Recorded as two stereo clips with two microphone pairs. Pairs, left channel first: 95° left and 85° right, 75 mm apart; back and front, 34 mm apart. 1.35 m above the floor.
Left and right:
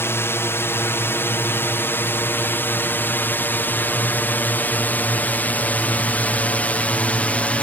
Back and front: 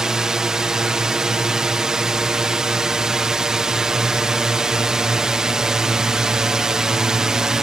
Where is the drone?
60° left; by 7.6 s 45° left.